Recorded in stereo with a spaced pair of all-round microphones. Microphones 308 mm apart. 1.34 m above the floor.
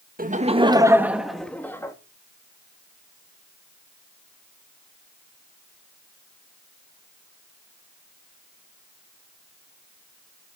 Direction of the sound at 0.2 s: 30° right (ahead or behind).